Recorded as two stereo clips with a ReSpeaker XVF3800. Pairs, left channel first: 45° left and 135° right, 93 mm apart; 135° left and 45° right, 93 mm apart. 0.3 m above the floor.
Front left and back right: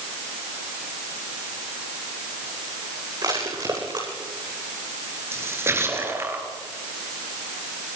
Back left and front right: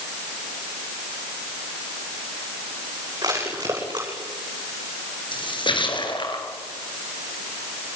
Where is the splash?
160° left, 4.5 m.